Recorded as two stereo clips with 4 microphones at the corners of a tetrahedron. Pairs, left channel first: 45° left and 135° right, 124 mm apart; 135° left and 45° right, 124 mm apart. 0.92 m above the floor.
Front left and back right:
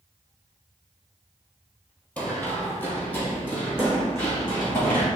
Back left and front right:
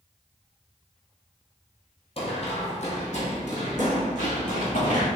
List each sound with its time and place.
2.2 s running footsteps: 120° left, 1.3 m